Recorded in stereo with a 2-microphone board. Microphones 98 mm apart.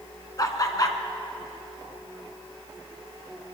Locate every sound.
0.4 s laughter: 35° left (ahead or behind), 1.6 m